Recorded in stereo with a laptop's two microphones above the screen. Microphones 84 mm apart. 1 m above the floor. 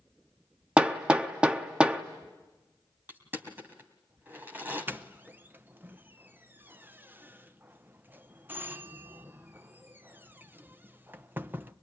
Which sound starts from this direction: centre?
Hammering, at 0.8 s.